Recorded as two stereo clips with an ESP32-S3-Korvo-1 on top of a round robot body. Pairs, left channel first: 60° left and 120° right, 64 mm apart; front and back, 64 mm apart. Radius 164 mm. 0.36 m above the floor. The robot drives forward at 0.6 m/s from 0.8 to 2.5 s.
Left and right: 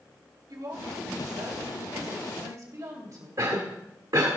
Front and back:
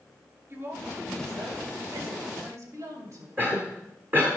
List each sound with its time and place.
0.5 s a woman speaking: 130° right, 2.5 m; by 3.3 s 145° right, 3 m
3.4 s a cough: 125° right, 1.8 m